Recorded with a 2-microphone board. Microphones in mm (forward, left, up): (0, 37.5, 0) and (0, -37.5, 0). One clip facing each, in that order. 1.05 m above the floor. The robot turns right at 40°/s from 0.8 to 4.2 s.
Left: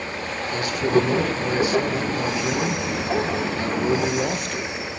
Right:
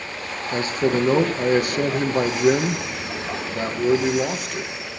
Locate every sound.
0.5 s a man speaking: 140° right, 1.2 m; by 4.7 s 5° right, 1.2 m